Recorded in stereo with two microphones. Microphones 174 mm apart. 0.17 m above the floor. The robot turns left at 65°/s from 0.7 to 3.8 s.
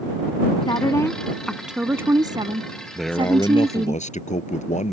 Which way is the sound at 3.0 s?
175° right.